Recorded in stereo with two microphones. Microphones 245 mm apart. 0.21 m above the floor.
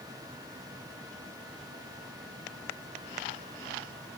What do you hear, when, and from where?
Only background noise.